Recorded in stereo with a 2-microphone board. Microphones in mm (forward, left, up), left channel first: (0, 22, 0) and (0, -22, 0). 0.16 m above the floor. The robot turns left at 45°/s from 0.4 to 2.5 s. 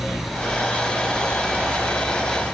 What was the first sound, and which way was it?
Only background noise.